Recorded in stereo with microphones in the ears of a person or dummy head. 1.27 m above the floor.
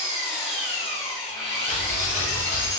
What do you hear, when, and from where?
0.0 s an engine running: 50° left (ahead or behind), 1.4 m
1.7 s ticking: 45° left (ahead or behind), 0.8 m